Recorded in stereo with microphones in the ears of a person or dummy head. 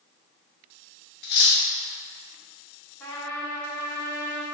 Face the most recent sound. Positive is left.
turn(degrees=10)  # may be behind; listen again after turning